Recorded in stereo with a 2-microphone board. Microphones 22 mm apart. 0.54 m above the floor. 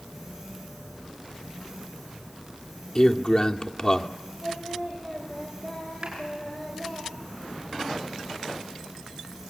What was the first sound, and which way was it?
A man speaking, 40° left (ahead or behind).